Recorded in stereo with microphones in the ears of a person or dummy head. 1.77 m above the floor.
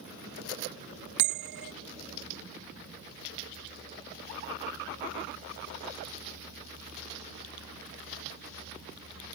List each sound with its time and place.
1.2 s a bell: 65° right (ahead or behind)